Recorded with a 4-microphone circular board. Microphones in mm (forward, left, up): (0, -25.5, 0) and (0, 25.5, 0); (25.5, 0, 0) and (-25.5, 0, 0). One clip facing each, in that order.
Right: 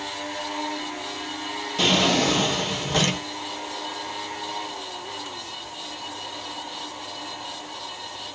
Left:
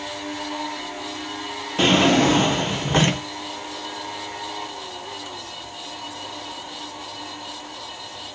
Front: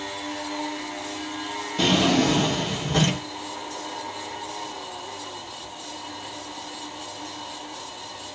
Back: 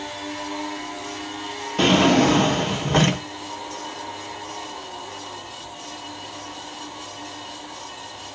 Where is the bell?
I don't hear a bell.